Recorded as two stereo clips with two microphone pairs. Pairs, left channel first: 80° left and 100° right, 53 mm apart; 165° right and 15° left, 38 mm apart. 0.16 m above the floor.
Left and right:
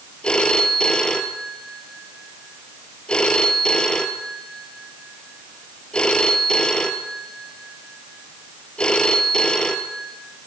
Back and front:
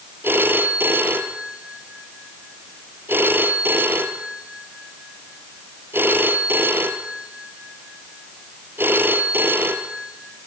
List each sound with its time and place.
0.2 s a phone ringing: 10° left, 2.5 m